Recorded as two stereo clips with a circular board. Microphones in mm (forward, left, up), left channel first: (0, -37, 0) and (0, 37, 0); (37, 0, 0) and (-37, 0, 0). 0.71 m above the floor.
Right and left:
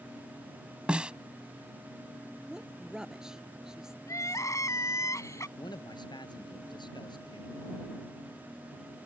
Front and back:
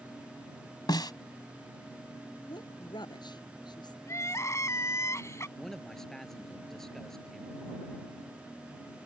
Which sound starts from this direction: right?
A man speaking, at 5.6 s.